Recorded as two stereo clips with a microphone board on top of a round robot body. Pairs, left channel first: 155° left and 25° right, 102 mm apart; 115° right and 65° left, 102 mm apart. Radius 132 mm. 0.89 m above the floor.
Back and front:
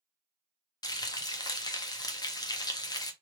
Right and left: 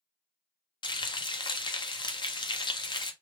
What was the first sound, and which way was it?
Frying, 155° right.